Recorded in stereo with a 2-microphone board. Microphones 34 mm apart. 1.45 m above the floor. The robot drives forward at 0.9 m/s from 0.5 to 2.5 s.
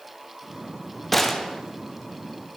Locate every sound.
1.1 s a gunshot: 5° left (ahead or behind), 0.5 m